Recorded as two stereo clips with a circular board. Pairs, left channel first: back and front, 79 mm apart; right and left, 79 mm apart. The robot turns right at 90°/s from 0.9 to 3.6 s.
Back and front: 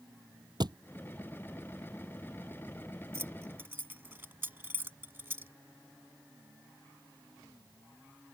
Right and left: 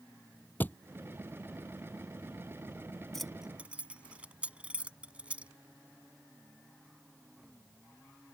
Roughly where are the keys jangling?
Ahead.